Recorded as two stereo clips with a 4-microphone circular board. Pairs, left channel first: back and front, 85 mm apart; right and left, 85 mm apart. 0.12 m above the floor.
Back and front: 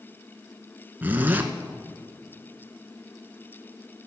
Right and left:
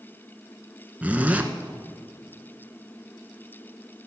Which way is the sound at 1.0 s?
40° left.